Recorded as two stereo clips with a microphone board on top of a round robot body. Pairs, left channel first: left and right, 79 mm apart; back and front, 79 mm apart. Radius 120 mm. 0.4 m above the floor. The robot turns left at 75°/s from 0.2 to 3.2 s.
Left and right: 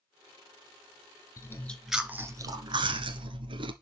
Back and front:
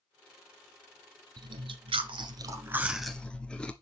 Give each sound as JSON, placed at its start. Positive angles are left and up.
{"t": 1.4, "sound": "chewing", "azimuth_deg": 40, "distance_m": 1.2}